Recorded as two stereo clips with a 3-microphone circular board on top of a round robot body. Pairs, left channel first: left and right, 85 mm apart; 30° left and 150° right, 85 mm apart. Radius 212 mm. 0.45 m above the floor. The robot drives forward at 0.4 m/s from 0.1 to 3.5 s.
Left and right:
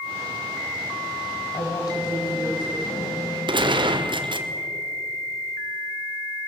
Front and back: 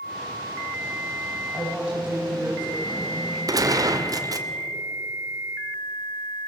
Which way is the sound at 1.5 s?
130° left.